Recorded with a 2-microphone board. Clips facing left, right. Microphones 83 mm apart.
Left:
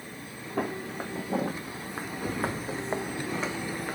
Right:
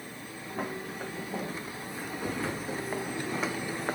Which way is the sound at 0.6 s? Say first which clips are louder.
Left 4 dB; 75° left (ahead or behind).